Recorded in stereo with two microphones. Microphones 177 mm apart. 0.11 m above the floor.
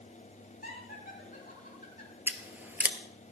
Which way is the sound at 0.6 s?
60° left (ahead or behind).